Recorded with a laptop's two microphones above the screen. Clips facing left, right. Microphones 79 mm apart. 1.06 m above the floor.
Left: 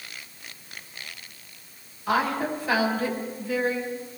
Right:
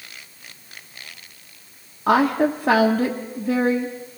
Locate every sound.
2.1 s a woman speaking: 70° right (ahead or behind), 1.1 m